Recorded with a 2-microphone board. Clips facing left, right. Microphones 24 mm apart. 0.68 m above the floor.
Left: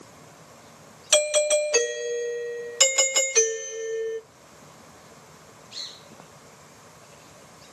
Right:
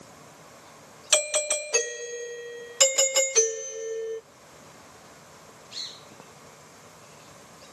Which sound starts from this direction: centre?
A doorbell, at 1.1 s.